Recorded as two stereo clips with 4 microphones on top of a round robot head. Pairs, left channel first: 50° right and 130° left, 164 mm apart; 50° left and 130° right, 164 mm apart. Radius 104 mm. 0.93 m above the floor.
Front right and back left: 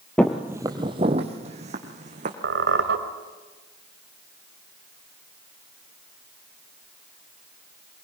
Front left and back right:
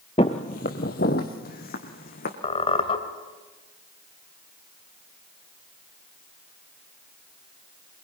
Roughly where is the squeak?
Left.